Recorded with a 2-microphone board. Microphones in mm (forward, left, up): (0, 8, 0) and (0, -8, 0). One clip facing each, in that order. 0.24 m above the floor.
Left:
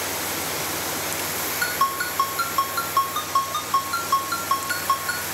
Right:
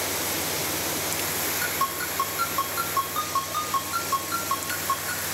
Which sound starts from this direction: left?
A ringtone, at 1.6 s.